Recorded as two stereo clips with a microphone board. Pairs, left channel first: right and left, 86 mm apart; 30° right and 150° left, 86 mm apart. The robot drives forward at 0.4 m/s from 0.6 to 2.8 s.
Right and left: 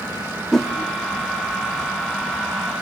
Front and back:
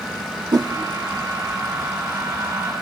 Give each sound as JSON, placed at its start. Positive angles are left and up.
{"t": 0.5, "sound": "a whoosh", "azimuth_deg": -175, "distance_m": 1.5}